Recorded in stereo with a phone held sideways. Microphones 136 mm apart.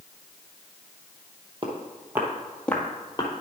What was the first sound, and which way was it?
Footsteps, 35° right (ahead or behind).